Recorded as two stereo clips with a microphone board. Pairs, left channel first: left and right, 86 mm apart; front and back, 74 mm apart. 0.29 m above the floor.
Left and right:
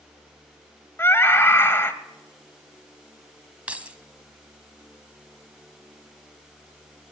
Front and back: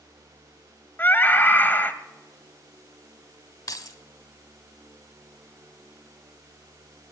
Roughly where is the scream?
Ahead left.